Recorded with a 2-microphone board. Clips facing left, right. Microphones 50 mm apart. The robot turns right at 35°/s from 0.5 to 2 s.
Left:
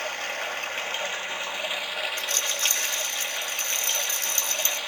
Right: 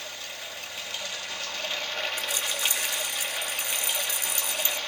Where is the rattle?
15° right (ahead or behind), 1.6 m.